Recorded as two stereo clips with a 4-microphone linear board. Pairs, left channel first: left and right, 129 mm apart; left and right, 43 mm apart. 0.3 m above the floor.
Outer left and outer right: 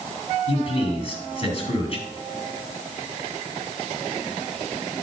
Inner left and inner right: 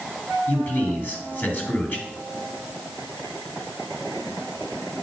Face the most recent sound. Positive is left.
turn(degrees=40)  # may be behind; listen again after turning